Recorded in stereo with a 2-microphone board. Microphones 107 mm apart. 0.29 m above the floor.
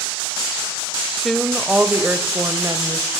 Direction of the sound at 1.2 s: Centre (ahead or behind).